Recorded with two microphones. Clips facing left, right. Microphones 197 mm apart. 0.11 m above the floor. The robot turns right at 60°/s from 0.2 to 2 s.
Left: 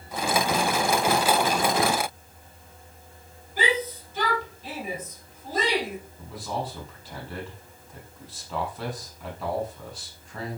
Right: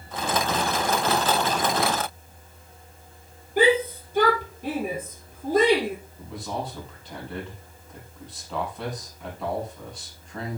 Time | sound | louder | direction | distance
3.6 | a shout | right 8 dB | 55° right (ahead or behind) | 4 m
6.2 | a man speaking | left 1 dB | centre (ahead or behind) | 4.5 m